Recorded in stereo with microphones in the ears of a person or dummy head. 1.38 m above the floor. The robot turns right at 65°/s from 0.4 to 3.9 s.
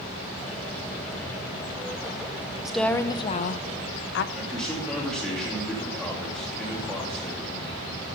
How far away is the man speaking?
About 2.5 m.